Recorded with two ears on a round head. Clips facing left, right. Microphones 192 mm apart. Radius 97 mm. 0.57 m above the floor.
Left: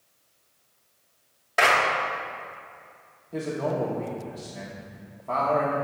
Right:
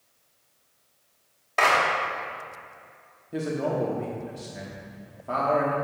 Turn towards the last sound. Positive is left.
turn(degrees=-15)  # may be behind; listen again after turning